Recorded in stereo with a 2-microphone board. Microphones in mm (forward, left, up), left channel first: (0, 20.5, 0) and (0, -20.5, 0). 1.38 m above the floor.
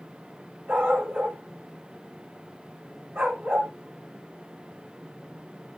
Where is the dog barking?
60° right (ahead or behind), 5 m.